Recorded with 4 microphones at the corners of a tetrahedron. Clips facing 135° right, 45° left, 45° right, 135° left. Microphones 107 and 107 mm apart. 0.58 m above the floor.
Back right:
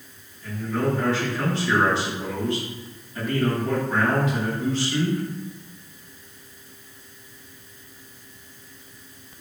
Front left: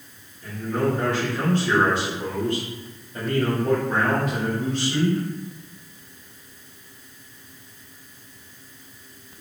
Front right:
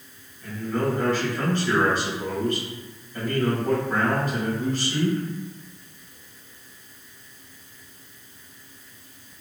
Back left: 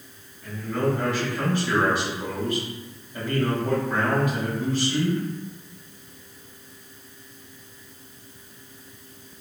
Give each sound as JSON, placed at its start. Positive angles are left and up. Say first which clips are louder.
{"t": 0.4, "sound": "a man speaking", "louder": "front left 1 dB, even", "azimuth_deg": 60, "distance_m": 1.9}